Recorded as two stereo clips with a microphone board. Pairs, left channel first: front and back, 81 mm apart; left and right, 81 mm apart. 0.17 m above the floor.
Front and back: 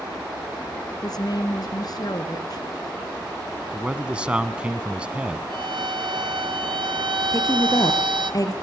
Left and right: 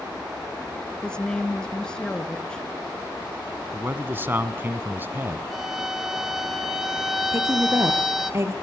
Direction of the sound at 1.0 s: 10° left.